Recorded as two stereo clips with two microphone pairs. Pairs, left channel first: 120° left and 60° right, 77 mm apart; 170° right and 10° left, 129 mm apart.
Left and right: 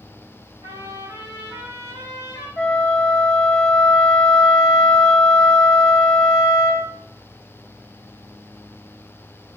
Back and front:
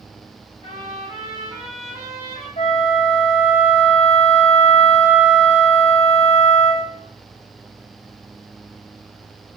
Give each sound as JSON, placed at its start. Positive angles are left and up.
{"t": 0.6, "sound": "a trumpet", "azimuth_deg": -35, "distance_m": 4.0}
{"t": 2.6, "sound": "a flute", "azimuth_deg": -160, "distance_m": 1.1}